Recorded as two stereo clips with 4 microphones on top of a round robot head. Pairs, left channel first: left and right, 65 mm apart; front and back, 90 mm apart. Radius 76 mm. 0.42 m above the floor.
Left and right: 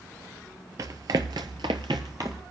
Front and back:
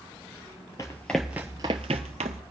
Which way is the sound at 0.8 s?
65° right.